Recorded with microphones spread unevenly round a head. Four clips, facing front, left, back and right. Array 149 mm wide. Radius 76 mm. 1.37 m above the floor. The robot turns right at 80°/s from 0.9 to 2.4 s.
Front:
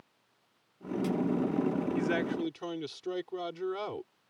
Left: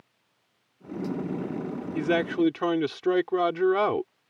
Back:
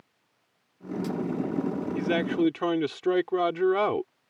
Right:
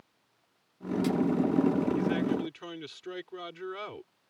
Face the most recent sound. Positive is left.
turn(degrees=130)